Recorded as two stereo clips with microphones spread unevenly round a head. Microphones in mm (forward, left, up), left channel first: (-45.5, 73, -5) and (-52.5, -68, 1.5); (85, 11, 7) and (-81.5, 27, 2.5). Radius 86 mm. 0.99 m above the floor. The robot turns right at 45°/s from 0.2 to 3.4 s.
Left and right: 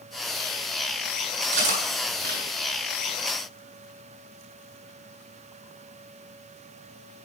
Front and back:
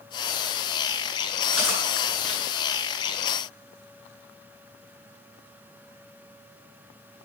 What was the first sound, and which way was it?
Cutlery clinking, 105° right.